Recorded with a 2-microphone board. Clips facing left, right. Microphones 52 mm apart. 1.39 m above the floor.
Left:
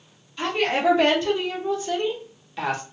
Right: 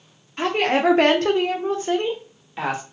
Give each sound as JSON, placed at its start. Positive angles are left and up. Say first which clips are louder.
{"t": 0.4, "sound": "a woman speaking", "louder": "right 3 dB", "side_deg": -50, "distance_m": 0.8}